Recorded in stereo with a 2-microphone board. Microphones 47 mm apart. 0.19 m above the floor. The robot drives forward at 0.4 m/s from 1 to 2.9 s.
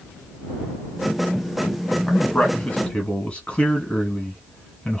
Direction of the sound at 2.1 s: 20° left (ahead or behind).